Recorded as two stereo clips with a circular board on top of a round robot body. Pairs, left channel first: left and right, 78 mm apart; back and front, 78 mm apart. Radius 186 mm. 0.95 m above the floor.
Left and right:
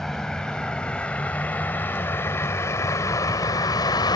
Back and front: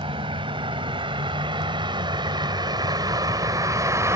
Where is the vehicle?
5° left; by 4.2 s 55° left.